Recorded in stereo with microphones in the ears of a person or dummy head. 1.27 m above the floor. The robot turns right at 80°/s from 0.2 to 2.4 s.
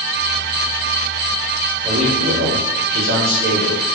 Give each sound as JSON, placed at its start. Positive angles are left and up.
{"t": 1.8, "sound": "a man speaking", "azimuth_deg": -155, "distance_m": 3.0}